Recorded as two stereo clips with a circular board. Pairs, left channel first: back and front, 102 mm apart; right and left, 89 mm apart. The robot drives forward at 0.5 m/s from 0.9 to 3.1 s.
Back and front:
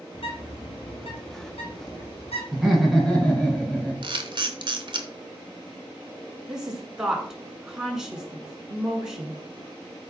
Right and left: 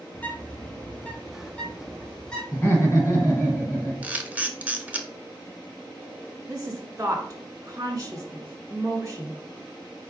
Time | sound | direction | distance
0.1 | a bird | 160° right | 0.8 m
2.5 | laughter | 85° right | 1.6 m
4.0 | a camera shutter | 20° left | 0.6 m
6.5 | a woman speaking | 80° left | 1.3 m